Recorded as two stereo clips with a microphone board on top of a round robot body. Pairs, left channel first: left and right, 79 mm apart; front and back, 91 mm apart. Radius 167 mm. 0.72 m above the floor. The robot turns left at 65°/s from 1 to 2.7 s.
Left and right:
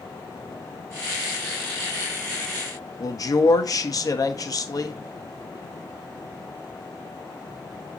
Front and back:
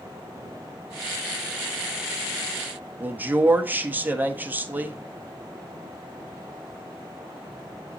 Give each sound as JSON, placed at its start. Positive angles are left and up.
{"t": 3.0, "sound": "a man speaking", "azimuth_deg": 115, "distance_m": 1.6}